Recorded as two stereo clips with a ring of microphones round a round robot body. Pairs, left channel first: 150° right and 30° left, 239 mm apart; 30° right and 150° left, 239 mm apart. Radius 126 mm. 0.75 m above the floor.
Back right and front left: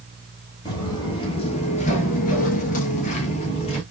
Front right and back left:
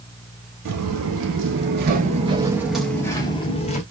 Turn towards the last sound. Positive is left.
turn(degrees=-85)